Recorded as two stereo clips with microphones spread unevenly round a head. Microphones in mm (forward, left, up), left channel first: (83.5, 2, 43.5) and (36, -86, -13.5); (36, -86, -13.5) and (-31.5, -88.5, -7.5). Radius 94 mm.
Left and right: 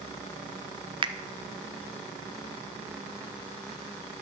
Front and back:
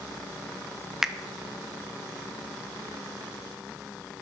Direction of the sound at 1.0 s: 90° right.